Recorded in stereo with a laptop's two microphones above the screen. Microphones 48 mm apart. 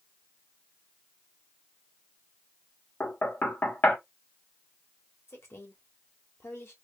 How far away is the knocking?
About 0.7 m.